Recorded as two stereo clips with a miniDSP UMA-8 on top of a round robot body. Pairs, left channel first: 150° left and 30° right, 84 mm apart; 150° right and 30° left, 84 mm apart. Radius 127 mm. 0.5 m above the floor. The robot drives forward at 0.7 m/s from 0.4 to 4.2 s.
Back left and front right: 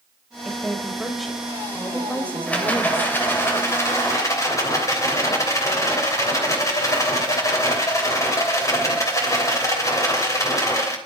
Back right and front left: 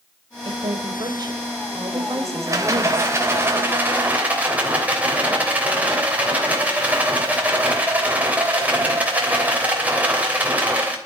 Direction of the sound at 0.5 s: 55° left.